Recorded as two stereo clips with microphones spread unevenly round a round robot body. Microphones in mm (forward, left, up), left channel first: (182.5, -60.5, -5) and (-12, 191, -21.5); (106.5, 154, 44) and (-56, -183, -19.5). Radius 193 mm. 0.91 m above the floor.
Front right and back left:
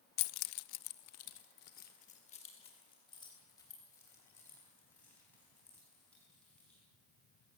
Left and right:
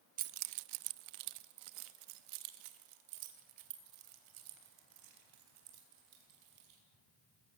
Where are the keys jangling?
45° right, 0.5 m; by 6.8 s 140° right, 5 m.